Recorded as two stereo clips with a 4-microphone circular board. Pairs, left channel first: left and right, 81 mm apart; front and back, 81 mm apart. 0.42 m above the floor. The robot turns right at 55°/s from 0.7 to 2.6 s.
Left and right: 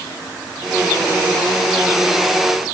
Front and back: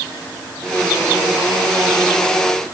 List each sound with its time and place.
Only background noise.